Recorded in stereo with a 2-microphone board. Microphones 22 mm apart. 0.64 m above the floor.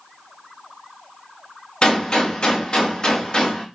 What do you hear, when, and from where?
1.8 s a gunshot: 45° left (ahead or behind), 1.3 m